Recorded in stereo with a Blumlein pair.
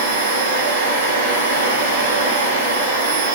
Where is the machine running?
65° right, 0.9 m.